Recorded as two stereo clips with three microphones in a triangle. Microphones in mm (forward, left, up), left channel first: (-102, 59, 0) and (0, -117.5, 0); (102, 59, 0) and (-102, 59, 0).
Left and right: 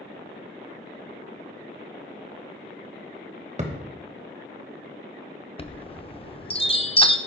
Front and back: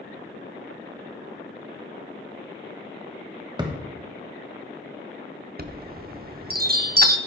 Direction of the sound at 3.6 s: 115° right.